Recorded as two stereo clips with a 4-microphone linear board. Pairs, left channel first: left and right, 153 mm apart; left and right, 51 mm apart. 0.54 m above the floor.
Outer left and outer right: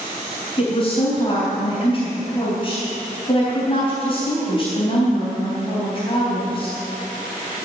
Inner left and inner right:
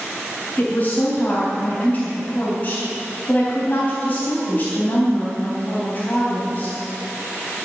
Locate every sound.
0.6 s a woman speaking: 35° left (ahead or behind), 4 m